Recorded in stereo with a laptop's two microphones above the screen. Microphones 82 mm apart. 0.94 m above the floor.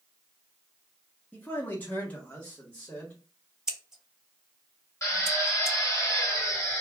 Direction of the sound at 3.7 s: 5° right (ahead or behind).